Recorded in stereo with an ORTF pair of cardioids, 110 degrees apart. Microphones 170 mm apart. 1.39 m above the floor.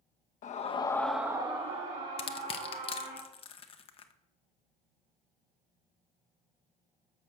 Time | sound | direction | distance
0.4 | a scream | 50° left | 1.0 m
2.2 | crushing | 35° left | 0.8 m